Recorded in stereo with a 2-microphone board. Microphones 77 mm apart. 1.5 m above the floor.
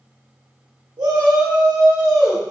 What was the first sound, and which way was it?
A shout, 65° right (ahead or behind).